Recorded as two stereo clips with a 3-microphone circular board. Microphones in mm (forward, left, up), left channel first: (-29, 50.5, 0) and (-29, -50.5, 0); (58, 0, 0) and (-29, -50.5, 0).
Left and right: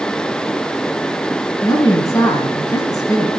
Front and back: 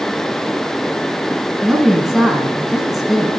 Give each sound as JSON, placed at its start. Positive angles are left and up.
{"t": 1.6, "sound": "a woman speaking", "azimuth_deg": 120, "distance_m": 1.6}